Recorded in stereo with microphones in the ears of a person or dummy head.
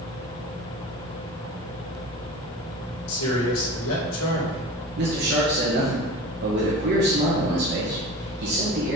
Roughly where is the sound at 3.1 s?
Left.